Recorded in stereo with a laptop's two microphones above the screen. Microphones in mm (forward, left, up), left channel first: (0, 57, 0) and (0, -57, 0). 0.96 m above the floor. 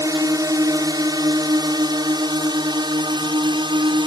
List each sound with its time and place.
0.0 s a drone: 30° right (ahead or behind); by 4.1 s 45° right (ahead or behind)